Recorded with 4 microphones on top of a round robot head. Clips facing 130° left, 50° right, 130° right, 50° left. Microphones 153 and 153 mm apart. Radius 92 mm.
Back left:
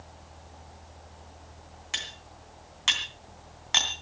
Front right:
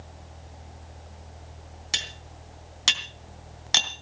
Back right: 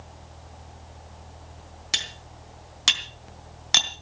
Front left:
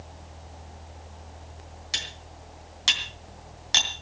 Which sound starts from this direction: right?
Cutlery clinking, at 1.9 s.